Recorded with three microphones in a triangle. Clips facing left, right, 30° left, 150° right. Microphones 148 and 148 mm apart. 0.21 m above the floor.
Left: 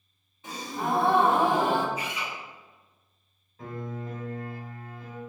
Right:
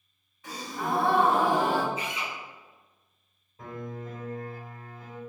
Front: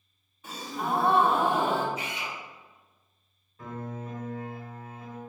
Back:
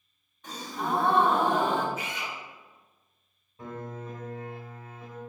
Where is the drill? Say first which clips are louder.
Even, even; 145° right, 1.8 m.